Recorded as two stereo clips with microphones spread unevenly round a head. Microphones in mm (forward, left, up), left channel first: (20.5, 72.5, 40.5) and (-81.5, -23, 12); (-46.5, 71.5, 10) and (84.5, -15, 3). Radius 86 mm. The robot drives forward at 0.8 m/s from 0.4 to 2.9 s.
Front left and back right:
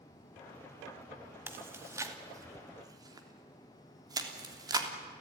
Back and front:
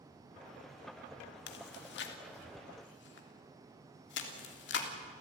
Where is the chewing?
155° left, 2 m; by 4.9 s 165° left, 3 m.